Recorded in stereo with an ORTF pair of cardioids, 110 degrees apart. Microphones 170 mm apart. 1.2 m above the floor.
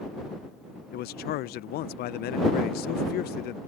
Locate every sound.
0.9 s a man speaking: 70° left